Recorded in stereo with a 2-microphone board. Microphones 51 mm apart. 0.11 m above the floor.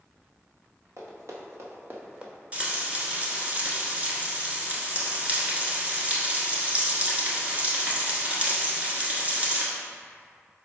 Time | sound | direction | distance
1.0 | running footsteps | 75° right (ahead or behind) | 2.0 m
2.5 | frying | 30° right (ahead or behind) | 1.0 m